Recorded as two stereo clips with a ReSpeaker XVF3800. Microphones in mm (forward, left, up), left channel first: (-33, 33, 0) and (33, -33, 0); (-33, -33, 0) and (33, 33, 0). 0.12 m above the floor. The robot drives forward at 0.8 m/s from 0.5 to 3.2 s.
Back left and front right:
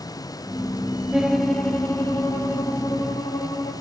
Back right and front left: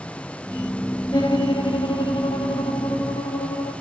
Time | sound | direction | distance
1.1 | a violin | 125° right | 0.6 m